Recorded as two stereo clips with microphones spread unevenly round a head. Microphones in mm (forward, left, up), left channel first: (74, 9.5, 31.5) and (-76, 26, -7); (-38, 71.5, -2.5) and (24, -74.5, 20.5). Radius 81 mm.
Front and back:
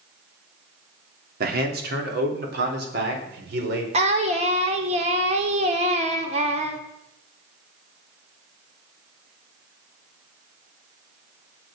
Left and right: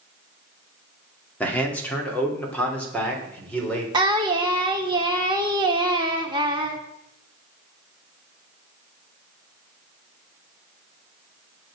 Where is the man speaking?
170° right, 2.5 m; by 3.8 s 165° right, 4 m.